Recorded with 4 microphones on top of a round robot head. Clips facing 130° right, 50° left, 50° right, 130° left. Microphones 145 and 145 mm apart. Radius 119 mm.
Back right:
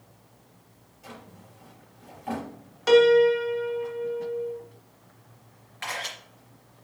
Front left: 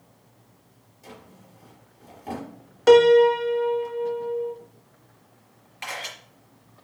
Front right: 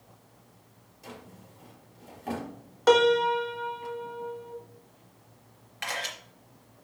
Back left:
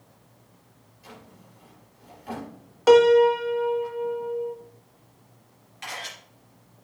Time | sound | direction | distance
1.0 | a drawer | 5° right | 4.5 m
2.9 | a piano | 50° left | 0.8 m
5.8 | a camera shutter | 20° right | 3.5 m